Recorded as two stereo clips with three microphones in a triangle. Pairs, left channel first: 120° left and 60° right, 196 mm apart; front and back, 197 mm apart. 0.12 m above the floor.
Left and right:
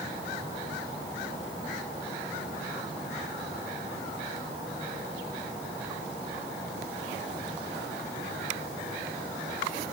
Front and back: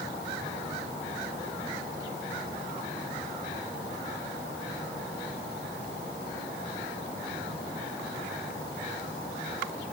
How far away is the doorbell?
No doorbell in this recording.